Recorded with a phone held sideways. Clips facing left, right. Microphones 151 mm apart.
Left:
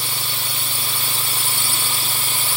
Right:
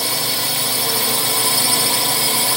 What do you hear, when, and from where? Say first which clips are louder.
0.0 s a drone: right 7 dB; 70° right (ahead or behind)